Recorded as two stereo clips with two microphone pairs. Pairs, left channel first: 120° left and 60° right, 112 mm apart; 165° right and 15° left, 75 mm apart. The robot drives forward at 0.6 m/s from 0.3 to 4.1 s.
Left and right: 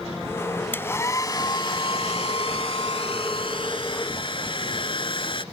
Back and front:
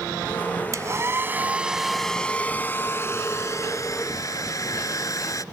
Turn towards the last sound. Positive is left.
turn(degrees=155)